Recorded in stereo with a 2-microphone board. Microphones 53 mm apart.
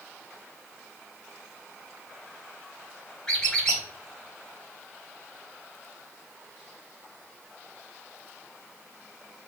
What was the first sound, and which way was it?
A squeak, 15° left (ahead or behind).